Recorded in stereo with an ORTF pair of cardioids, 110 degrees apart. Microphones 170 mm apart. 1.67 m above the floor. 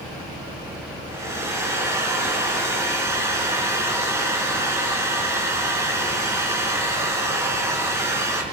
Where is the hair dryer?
15° right, 7.5 m.